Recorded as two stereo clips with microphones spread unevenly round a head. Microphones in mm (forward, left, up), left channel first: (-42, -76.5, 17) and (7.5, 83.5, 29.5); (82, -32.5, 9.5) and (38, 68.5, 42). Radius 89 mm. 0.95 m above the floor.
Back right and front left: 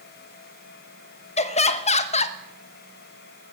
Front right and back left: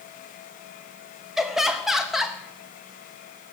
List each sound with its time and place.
1.4 s laughter: 150° right, 1.0 m